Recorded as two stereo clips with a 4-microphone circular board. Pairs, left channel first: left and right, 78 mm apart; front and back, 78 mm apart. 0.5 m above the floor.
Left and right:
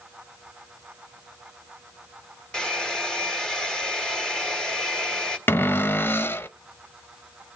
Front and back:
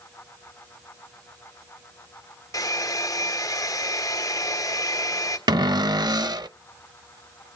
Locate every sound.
2.5 s a hair dryer: 15° left, 1.5 m
5.5 s a cupboard door: 150° left, 0.6 m